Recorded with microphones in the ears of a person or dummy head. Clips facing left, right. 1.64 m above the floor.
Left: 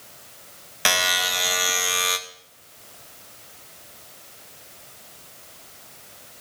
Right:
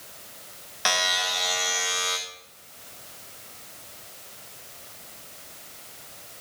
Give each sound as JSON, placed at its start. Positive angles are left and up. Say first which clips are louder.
{"t": 0.8, "sound": "a buzzer", "louder": "left 2 dB", "side_deg": 35, "distance_m": 0.6}